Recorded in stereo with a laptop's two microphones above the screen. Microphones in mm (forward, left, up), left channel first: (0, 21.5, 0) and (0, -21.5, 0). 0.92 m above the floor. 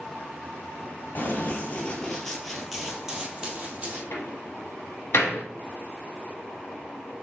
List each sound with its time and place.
1.1 s running footsteps: 40° left (ahead or behind), 1.3 m; by 4.0 s 30° right (ahead or behind), 1.8 m
4.1 s a door slam: 70° left (ahead or behind), 0.9 m